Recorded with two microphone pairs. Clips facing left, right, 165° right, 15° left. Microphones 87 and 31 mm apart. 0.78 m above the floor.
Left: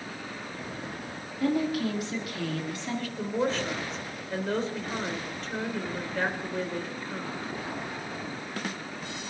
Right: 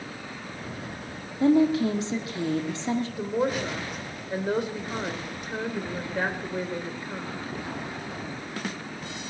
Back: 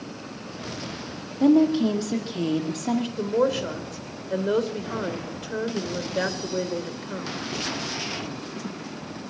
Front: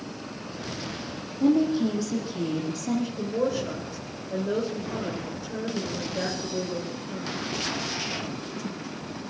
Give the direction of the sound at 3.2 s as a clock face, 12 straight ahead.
6 o'clock.